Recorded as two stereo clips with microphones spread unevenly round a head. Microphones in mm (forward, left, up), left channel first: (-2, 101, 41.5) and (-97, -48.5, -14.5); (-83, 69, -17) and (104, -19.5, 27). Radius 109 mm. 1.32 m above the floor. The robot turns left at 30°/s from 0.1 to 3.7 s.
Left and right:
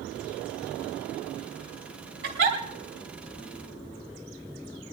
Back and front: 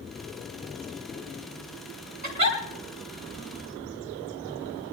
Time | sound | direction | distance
2.2 | a giggle | 75° right | 2.5 m